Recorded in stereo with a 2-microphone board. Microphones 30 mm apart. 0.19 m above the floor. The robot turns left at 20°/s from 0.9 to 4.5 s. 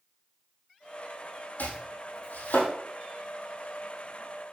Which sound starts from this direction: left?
Chopping, at 1.6 s.